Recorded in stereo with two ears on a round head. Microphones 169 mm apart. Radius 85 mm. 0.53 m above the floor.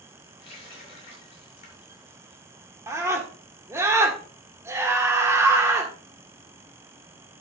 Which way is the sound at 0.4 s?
35° left (ahead or behind).